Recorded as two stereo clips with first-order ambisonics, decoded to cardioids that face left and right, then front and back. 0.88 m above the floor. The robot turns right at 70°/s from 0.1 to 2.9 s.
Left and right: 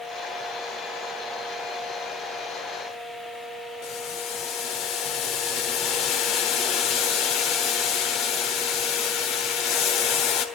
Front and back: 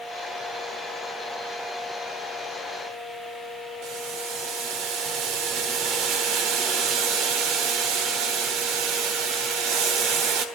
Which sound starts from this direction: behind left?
Boiling, at 3.8 s.